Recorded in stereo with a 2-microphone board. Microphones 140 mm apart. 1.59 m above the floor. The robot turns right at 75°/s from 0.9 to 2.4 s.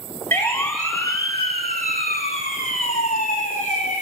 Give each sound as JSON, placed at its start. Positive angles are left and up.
{"t": 0.3, "sound": "a siren", "side_deg": 15, "distance_m": 2.5}